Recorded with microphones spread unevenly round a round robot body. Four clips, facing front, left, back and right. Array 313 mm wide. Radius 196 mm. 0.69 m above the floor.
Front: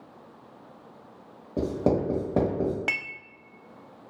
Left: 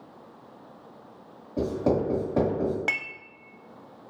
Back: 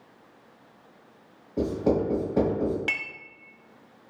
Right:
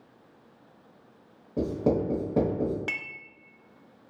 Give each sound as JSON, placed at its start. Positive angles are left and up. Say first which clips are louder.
{"t": 1.6, "sound": "writing", "louder": "left 1 dB, back 1 dB", "azimuth_deg": -35, "distance_m": 0.8}
{"t": 2.9, "sound": "dishes clattering", "louder": "left 5 dB, front 1 dB", "azimuth_deg": 70, "distance_m": 0.7}